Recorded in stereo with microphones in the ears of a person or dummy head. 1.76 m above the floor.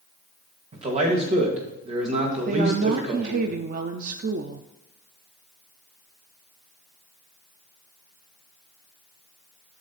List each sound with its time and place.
0.7 s a man speaking: 40° right (ahead or behind), 2.5 m
2.5 s a woman speaking: 45° right (ahead or behind), 0.6 m